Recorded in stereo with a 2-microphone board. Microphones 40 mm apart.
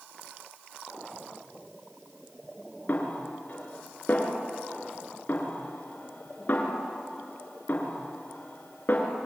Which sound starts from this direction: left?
A snare drum, at 2.9 s.